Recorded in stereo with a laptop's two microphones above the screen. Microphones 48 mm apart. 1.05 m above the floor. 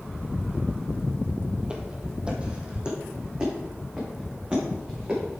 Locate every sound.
1.6 s footsteps: 20° right (ahead or behind), 1.2 m